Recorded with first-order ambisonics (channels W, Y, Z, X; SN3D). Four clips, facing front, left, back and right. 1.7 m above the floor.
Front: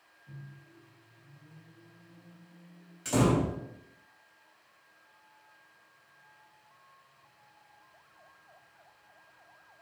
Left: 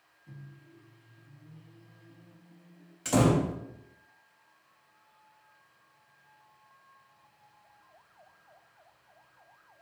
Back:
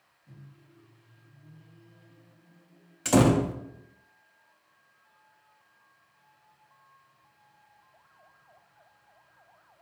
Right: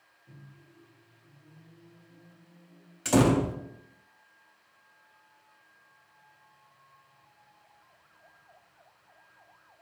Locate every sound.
0.3 s a microwave: 90° left, 1.9 m
3.0 s a door slam: 155° right, 0.5 m